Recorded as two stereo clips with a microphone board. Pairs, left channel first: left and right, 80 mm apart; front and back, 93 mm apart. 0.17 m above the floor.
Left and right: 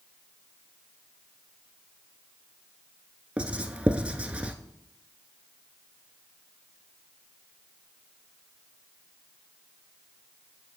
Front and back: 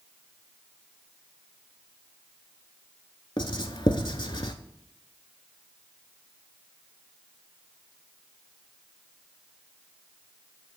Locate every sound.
3.4 s writing: 15° right, 0.6 m